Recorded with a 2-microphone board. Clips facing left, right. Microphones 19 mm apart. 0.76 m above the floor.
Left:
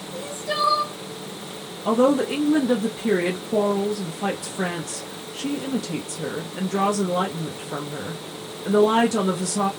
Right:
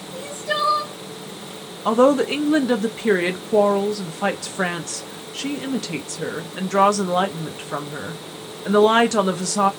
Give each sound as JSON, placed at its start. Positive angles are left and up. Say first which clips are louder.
{"t": 0.1, "sound": "crying", "louder": "right 2 dB", "side_deg": -15, "distance_m": 1.8}
{"t": 1.9, "sound": "a woman speaking", "louder": "right 3 dB", "side_deg": -50, "distance_m": 0.6}